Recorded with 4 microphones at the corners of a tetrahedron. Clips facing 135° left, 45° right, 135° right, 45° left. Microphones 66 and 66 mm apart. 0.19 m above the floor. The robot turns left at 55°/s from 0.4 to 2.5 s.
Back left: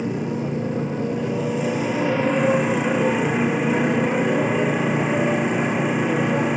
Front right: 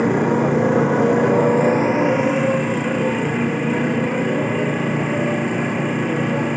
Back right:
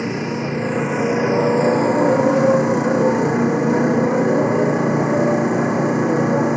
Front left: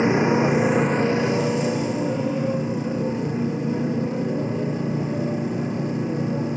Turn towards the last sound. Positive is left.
turn(degrees=-140)